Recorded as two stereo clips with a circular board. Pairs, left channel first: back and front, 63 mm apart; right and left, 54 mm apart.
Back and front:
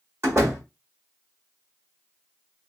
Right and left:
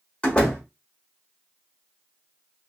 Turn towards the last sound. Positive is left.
turn(degrees=-30)